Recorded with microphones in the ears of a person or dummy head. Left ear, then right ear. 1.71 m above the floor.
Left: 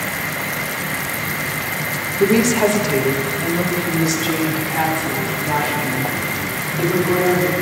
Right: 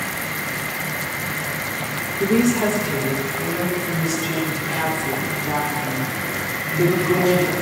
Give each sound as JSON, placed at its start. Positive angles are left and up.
{"t": 2.2, "sound": "a woman speaking", "side_deg": 25, "distance_m": 0.8}